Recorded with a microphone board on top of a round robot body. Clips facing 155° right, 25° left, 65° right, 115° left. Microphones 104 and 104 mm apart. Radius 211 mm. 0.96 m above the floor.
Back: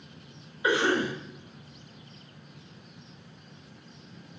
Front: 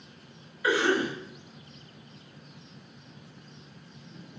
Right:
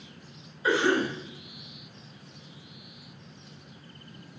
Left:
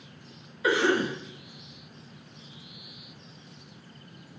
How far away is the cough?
About 1.1 m.